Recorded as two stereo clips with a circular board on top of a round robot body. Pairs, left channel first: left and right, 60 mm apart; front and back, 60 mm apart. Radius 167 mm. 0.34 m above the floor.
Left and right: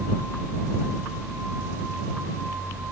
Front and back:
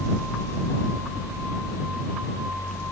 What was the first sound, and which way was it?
Only background noise.